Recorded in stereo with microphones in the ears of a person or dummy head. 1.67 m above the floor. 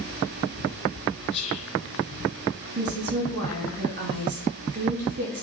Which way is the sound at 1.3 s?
30° left (ahead or behind).